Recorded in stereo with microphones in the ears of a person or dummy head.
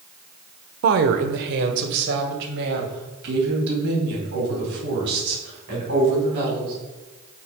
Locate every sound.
0.8 s a woman speaking: 60° right (ahead or behind), 0.5 m; by 6.7 s 55° right (ahead or behind), 4 m